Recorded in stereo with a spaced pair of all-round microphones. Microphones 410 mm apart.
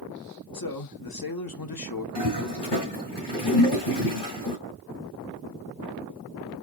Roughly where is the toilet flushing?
Left.